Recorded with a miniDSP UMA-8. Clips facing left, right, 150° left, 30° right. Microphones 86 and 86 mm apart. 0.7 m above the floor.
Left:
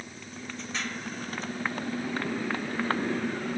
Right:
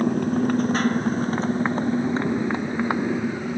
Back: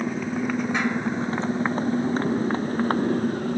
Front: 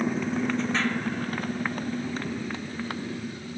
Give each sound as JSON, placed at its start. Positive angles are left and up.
{"t": 0.0, "sound": "a motorcycle", "azimuth_deg": -125}